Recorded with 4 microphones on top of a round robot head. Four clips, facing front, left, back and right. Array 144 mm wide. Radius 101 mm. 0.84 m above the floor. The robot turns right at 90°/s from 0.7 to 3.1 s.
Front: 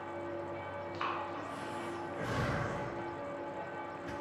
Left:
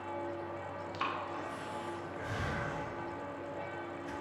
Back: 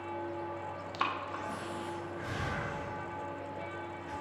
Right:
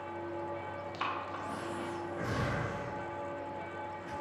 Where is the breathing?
175° left, 0.5 m; by 4.1 s 10° left, 0.5 m.